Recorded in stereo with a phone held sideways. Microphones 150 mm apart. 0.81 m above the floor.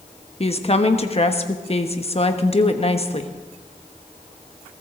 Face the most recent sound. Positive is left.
turn(degrees=40)  # may be behind; listen again after turning